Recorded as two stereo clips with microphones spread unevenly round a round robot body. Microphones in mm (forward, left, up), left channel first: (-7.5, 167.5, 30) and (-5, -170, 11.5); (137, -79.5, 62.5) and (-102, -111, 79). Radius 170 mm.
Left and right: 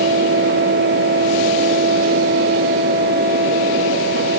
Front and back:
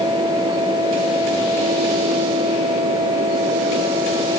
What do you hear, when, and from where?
Only background noise.